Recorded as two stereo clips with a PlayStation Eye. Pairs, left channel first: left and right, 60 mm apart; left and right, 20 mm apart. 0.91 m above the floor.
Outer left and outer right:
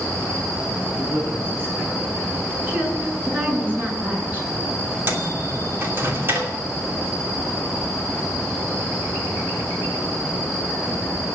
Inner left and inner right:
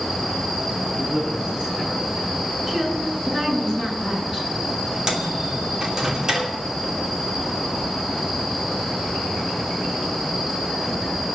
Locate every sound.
0.9 s a man speaking: 35° right (ahead or behind), 7.5 m
2.7 s a woman speaking: 30° right (ahead or behind), 9.5 m
5.1 s a microwave: 40° right (ahead or behind), 2.5 m